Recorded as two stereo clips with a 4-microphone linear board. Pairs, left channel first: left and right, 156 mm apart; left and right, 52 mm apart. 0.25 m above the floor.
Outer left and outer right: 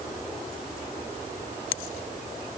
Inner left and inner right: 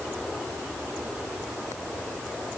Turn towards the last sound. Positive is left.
No sound to turn to.